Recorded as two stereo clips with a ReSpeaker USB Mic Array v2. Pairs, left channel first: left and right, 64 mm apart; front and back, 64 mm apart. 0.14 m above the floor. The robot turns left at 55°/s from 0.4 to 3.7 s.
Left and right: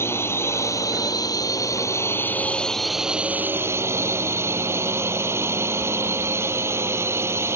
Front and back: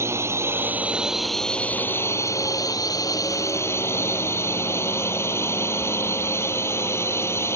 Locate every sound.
0.0 s a drone: 135° left; by 7.6 s 45° right